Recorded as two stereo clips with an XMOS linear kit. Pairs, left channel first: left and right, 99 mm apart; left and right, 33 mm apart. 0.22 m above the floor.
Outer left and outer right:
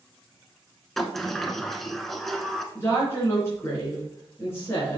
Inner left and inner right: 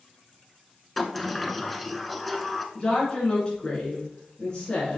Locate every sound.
1.0 s a sliding door: 5° left (ahead or behind), 0.8 m
2.8 s a woman speaking: 25° left (ahead or behind), 3.5 m